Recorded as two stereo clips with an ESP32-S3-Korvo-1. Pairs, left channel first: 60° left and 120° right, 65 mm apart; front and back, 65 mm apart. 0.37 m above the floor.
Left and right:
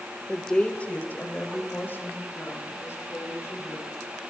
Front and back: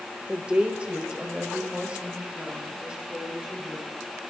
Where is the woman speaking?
140° left, 1.1 m; by 3.9 s 105° left, 5.5 m.